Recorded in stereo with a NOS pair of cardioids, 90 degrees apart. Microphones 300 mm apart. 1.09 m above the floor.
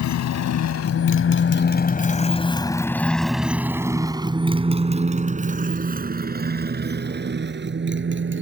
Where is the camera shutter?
I don't hear a camera shutter.